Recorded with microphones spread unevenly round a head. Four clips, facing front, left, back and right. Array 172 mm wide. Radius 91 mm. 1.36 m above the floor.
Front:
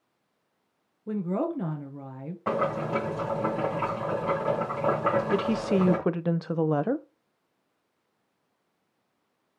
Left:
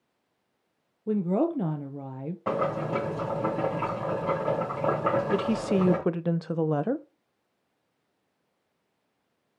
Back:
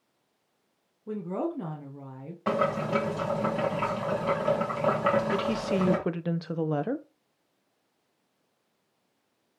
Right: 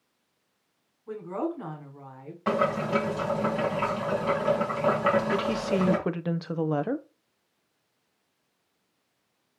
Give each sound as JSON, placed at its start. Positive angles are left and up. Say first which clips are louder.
{"t": 1.1, "sound": "a woman speaking", "louder": "left 6 dB, front 3 dB", "azimuth_deg": 90, "distance_m": 1.4}
{"t": 2.5, "sound": "boiling", "louder": "right 2 dB, back 1 dB", "azimuth_deg": 150, "distance_m": 2.5}
{"t": 5.3, "sound": "a woman speaking", "louder": "left 1 dB, front 2 dB", "azimuth_deg": -15, "distance_m": 0.7}